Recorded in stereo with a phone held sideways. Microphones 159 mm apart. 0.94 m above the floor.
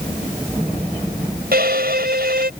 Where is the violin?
80° right.